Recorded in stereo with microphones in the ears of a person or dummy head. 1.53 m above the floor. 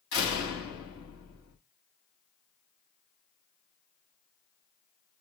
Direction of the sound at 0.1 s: 85° left.